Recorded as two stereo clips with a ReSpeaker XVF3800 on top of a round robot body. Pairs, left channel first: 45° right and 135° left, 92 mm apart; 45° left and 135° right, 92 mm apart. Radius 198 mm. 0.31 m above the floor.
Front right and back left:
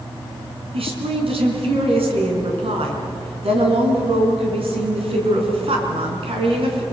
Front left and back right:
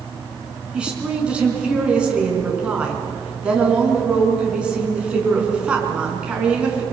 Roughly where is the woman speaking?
Behind left.